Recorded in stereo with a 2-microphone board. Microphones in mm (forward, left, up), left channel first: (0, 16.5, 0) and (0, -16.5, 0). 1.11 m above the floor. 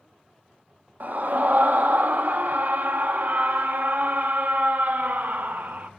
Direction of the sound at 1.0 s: 60° right (ahead or behind).